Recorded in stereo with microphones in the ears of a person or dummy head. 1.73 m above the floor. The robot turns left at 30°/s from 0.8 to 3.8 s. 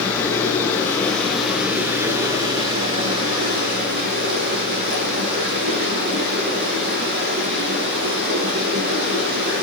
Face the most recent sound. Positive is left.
turn(degrees=-70)